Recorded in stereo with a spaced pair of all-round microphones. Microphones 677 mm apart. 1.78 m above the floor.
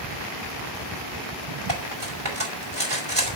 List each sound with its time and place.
1.7 s cutlery clinking: 35° right (ahead or behind), 5.5 m